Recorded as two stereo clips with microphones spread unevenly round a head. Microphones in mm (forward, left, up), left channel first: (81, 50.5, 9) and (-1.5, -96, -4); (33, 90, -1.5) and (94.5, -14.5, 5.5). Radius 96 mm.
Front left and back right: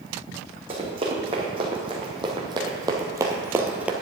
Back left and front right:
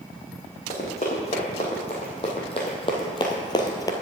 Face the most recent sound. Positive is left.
turn(degrees=155)